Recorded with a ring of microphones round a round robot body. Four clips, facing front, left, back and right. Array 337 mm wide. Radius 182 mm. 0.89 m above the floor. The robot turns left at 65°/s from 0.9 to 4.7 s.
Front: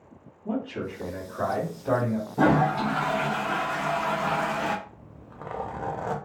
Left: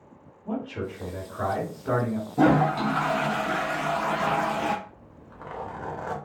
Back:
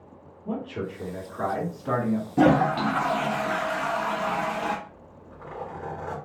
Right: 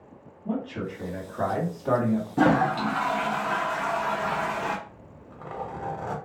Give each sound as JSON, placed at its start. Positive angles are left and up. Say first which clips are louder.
{"t": 0.5, "sound": "a man speaking", "louder": "right 1 dB, front 1 dB", "azimuth_deg": -40, "distance_m": 1.6}
{"t": 2.4, "sound": "a toilet flushing", "louder": "left 2 dB, back 2 dB", "azimuth_deg": -150, "distance_m": 0.5}
{"t": 4.9, "sound": "a zipper", "louder": "right 1 dB, back 1 dB", "azimuth_deg": 10, "distance_m": 1.0}